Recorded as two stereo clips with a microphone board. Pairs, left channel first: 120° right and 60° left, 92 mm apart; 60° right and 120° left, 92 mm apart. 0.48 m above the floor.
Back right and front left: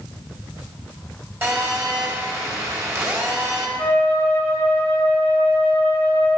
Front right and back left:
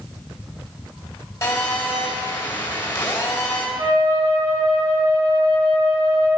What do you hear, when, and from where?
1.4 s a phone buzzing: straight ahead, 2.5 m
3.8 s a flute: straight behind, 3.5 m